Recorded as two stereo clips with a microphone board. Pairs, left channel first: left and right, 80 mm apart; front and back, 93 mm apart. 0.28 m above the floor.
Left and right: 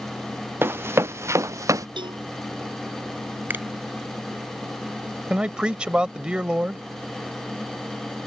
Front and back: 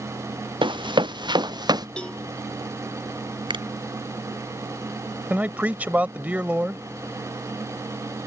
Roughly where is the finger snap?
Behind right.